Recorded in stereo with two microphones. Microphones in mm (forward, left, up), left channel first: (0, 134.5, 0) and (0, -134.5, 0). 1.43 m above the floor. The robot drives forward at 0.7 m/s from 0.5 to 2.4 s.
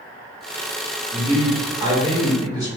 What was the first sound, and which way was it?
A man speaking, 25° right (ahead or behind).